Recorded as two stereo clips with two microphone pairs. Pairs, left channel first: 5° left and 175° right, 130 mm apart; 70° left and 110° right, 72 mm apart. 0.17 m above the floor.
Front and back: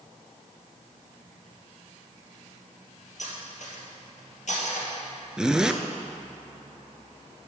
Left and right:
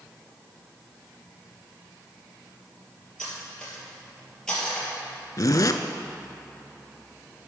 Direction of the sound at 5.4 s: 100° left.